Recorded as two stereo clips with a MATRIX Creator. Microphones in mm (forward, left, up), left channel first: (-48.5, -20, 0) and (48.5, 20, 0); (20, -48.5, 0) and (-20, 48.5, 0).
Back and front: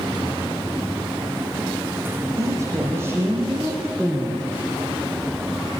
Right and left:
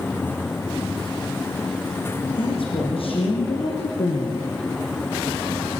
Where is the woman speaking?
35° right, 5.5 m; by 4.5 s 70° right, 3.5 m.